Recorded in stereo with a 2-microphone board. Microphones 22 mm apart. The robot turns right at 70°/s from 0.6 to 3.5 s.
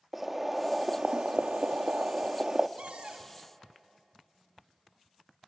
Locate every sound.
0.1 s boiling: 170° right, 0.6 m; by 2.7 s 25° right, 0.6 m
2.8 s a cupboard door: 80° right, 1.5 m; by 3.3 s 40° right, 1.5 m